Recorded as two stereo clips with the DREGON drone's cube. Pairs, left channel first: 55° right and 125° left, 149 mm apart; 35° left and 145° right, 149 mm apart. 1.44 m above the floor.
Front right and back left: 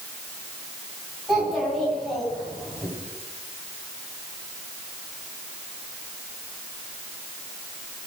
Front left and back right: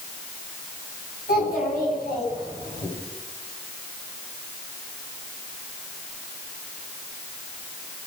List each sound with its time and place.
1.3 s a child speaking: 35° left, 9 m; by 2.9 s 30° left, 9.5 m